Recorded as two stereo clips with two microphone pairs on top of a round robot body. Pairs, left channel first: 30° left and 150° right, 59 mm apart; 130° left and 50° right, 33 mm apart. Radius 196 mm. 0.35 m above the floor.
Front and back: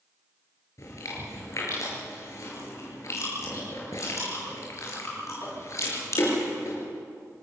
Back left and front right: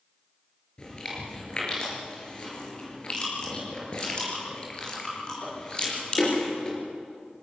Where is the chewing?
70° left, 5 m.